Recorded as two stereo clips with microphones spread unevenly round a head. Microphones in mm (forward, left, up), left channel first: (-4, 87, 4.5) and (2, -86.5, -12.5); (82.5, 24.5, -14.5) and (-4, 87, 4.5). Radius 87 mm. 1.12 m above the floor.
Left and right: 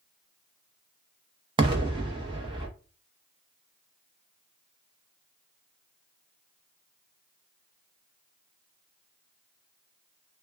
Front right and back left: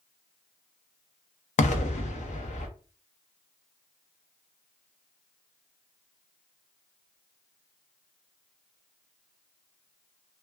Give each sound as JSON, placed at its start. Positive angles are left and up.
{"t": 1.6, "sound": "an explosion", "azimuth_deg": -20, "distance_m": 0.7}